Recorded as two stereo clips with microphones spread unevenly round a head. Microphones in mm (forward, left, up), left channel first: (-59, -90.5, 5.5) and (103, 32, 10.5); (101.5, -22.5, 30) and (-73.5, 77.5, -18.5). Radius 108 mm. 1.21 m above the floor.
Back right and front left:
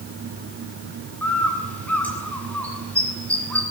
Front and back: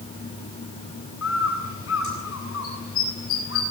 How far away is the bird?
About 9 m.